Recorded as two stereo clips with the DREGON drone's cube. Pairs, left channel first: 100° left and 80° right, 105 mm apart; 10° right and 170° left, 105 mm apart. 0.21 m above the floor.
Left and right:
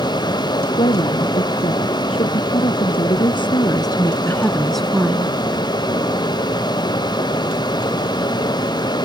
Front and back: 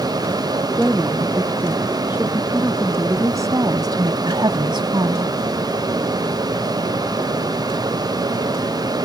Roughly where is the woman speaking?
Left.